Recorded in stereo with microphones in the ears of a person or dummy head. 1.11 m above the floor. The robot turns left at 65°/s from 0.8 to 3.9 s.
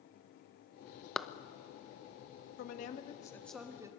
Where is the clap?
5° left (ahead or behind), 0.7 m; by 1.3 s centre (ahead or behind), 0.7 m.